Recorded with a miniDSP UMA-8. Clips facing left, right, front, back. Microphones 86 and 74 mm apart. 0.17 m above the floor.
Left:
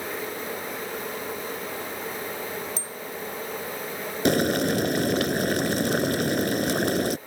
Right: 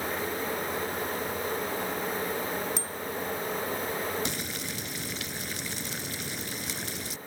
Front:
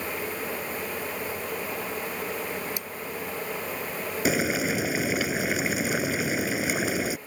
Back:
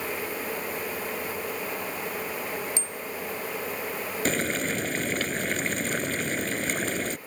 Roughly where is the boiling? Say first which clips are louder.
Left 14 dB, front 3 dB; left.